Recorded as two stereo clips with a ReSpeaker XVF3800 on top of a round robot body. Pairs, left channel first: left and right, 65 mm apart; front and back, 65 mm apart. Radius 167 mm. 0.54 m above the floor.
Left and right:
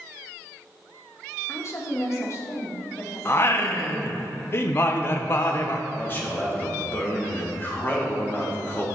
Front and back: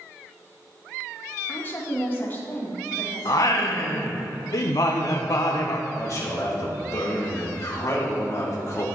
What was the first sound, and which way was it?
A woman speaking, 55° left.